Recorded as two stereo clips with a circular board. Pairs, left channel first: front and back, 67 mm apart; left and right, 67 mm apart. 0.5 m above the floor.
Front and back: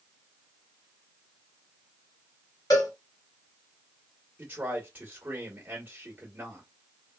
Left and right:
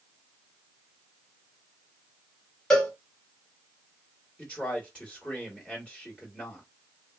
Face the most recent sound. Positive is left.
turn(degrees=150)